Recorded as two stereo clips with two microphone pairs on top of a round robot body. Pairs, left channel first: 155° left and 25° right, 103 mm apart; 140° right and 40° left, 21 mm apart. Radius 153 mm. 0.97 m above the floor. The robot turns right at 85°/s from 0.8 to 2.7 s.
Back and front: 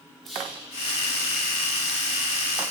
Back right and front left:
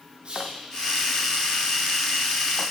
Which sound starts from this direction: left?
Whispering, at 0.2 s.